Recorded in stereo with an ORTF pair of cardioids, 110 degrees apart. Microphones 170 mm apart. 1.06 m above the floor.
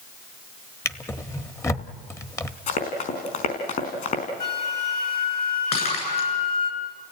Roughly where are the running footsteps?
Ahead left.